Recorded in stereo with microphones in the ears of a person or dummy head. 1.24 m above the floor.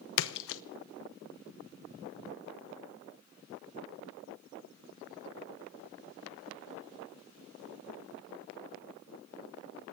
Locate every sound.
0.2 s a splash: 75° left (ahead or behind), 0.8 m